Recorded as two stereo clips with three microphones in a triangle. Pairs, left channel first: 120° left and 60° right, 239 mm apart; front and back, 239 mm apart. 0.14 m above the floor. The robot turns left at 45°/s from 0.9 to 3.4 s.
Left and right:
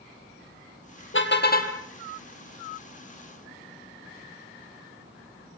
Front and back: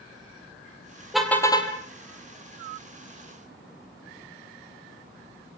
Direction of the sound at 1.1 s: 90° left.